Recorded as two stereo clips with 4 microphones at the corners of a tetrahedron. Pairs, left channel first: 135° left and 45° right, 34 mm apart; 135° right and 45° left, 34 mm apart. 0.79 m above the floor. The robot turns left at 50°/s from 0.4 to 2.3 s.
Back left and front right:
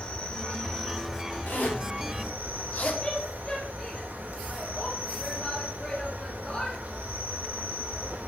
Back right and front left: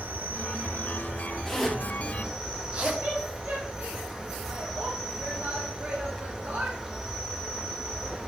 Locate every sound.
0.0 s an insect: 70° left, 1.4 m; by 8.3 s 25° right, 1.4 m
1.5 s a zipper: 145° left, 1.6 m; by 2.9 s 100° left, 1.6 m
3.0 s a woman speaking: 70° left, 1.8 m